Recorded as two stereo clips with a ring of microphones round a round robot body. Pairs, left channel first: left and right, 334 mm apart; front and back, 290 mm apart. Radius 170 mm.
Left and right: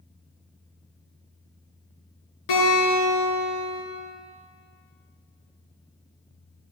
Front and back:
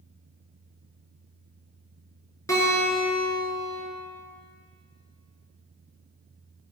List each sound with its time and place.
2.5 s a guitar: 80° left, 6 m